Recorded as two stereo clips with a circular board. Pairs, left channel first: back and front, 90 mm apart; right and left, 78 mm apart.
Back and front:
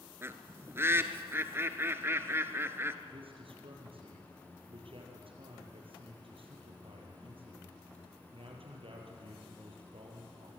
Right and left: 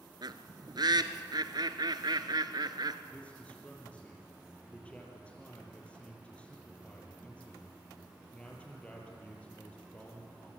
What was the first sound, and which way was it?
A bird, 65° left.